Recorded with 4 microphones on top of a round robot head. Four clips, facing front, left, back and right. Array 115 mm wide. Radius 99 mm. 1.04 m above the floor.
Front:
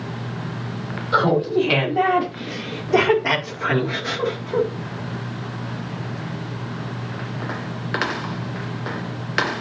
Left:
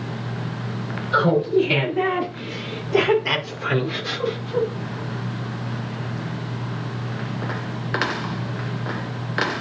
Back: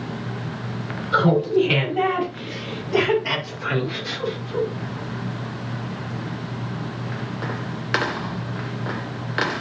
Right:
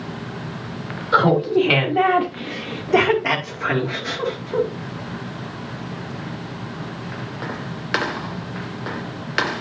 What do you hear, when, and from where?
1.1 s laughter: 70° right, 3.5 m; by 4.7 s 30° right, 2.5 m